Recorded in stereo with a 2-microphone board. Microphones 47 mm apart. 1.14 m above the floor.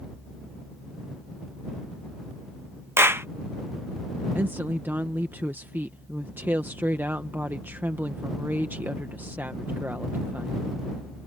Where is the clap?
65° right (ahead or behind).